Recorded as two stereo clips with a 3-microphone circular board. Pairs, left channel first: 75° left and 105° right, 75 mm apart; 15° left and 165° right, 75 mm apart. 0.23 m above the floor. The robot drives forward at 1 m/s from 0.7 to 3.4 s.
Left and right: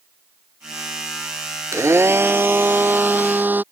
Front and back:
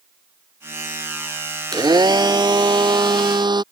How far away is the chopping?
I don't hear chopping.